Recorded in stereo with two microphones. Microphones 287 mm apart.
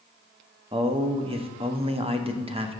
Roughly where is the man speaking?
Centre.